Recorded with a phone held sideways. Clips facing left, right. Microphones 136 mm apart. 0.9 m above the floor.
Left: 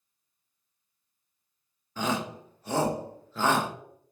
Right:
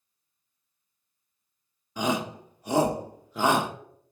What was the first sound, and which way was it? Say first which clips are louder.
A shout: right 2 dB; 15° right (ahead or behind).